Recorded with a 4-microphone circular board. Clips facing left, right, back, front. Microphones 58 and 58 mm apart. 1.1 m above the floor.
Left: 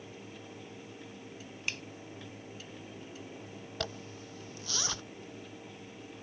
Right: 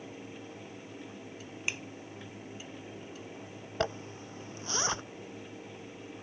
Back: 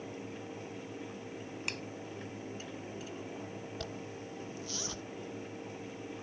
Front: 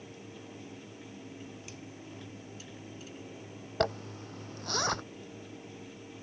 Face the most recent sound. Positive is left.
turn(degrees=-30)